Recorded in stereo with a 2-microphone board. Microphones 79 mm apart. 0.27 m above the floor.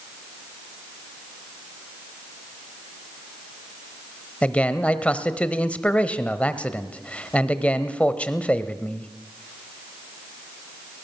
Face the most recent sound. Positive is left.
turn(degrees=15)  # may be behind; listen again after turning